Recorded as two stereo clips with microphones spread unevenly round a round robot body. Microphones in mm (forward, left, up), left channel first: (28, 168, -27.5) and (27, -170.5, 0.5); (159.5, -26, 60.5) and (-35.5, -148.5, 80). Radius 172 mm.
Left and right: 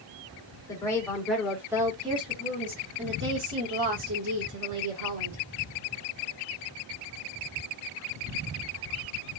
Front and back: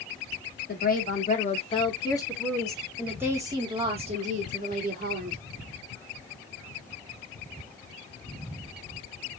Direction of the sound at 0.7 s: 15° left.